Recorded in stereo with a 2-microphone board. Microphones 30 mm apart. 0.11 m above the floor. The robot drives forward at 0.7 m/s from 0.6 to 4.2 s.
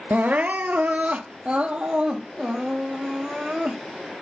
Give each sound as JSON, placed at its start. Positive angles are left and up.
{"t": 0.1, "sound": "crying", "side_deg": -55, "distance_m": 0.8}